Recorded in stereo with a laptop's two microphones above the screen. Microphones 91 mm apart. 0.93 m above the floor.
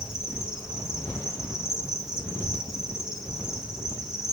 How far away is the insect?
About 3 m.